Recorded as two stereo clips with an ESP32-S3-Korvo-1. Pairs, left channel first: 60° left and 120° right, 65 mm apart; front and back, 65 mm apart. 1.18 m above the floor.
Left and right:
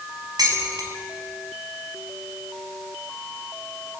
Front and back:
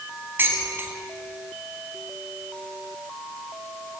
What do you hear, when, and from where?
0.4 s dishes clattering: 120° right, 4.5 m